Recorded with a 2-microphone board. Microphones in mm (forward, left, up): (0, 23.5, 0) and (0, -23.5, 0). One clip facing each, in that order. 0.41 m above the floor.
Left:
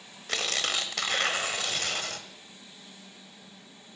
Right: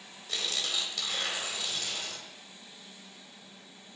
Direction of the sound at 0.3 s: 65° left (ahead or behind).